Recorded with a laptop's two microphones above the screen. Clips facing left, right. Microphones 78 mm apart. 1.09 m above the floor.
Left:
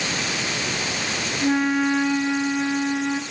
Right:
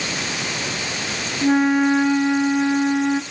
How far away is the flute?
About 1.9 m.